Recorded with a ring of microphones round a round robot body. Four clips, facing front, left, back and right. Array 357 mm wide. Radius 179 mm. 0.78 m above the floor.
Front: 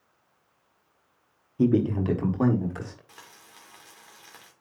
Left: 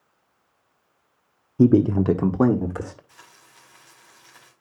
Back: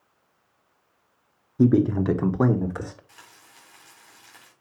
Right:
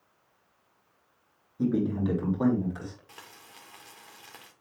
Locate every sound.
1.6 s a man speaking: 100° left, 1.4 m; by 3.0 s 110° left, 2.5 m
3.1 s frying: 70° right, 3 m